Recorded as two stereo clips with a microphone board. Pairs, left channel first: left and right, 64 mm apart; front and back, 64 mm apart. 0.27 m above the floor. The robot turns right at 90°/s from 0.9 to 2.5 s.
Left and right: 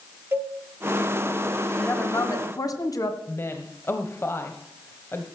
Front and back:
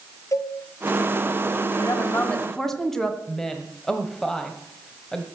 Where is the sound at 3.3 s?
80° left, 1.3 m.